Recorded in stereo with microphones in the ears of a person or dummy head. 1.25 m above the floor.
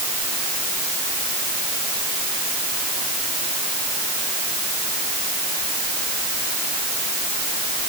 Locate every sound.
Only background noise.